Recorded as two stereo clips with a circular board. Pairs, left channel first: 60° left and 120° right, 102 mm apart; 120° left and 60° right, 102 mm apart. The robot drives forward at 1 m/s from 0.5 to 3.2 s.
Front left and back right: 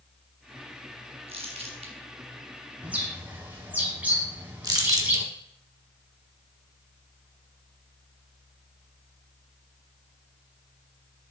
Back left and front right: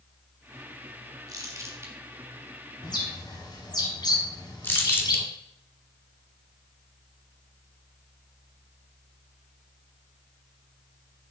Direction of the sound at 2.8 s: 165° left.